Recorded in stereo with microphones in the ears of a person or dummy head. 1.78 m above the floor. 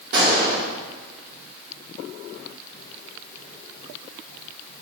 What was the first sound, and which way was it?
A gunshot, 65° right (ahead or behind).